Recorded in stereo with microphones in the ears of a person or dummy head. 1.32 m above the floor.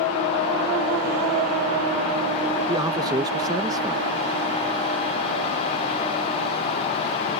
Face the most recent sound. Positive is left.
turn(degrees=-20)  # may be behind; listen again after turning